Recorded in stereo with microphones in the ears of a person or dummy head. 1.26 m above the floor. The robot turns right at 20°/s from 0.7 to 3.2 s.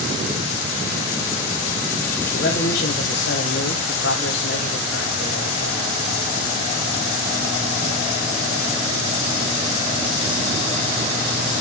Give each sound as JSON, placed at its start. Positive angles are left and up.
{"t": 2.3, "sound": "a man speaking", "side_deg": 50, "distance_m": 1.0}